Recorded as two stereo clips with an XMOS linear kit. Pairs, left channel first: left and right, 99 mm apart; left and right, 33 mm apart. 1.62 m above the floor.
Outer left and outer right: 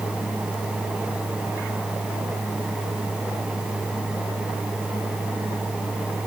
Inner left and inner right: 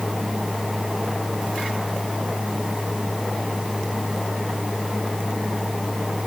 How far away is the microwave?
No microwave in this recording.